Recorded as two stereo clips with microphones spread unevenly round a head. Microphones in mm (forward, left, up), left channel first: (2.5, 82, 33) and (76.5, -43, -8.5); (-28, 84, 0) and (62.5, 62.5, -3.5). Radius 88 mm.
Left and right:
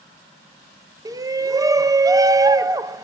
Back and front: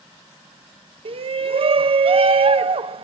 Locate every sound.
1.1 s a shout: 5° left, 1.2 m